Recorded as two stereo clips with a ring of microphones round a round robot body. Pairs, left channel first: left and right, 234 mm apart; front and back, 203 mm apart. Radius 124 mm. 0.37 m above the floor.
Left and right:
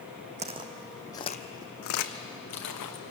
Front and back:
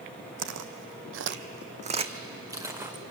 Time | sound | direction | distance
0.4 | footsteps | 150° right | 1.1 m